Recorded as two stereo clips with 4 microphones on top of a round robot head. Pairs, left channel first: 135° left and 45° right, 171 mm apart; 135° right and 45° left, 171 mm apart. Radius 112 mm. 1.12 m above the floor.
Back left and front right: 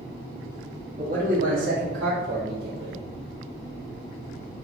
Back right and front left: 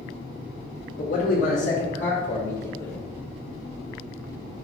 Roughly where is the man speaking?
Right.